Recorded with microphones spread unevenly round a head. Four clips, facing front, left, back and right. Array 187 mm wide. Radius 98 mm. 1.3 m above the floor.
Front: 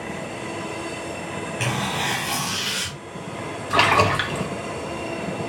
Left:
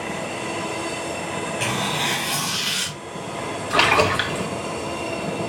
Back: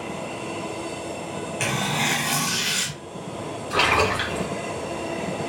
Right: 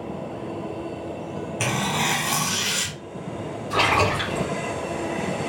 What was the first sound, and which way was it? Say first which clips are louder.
Tearing paper: right 3 dB, even; 85° right.